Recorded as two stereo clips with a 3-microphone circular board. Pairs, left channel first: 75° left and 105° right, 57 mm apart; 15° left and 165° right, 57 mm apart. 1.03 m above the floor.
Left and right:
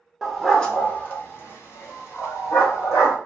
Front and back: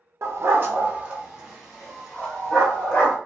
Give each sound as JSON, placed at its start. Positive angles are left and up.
{"t": 0.2, "sound": "a dog barking", "azimuth_deg": 170, "distance_m": 0.8}